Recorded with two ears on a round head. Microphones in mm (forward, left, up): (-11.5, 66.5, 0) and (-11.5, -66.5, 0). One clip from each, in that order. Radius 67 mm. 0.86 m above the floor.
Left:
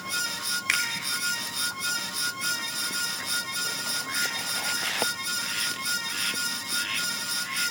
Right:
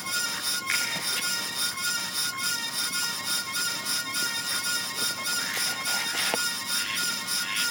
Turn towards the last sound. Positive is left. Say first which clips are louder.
# left 3 dB
turn(degrees=70)  # may be behind; listen again after turning